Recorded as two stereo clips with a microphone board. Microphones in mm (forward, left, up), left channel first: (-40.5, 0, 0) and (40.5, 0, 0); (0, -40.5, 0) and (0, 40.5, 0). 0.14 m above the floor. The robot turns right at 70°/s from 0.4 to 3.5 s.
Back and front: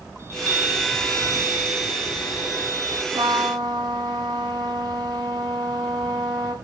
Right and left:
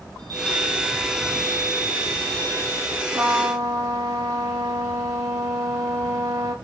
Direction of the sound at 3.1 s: 15° left.